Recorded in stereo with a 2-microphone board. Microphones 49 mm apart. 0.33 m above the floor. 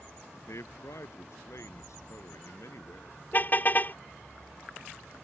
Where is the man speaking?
75° left (ahead or behind).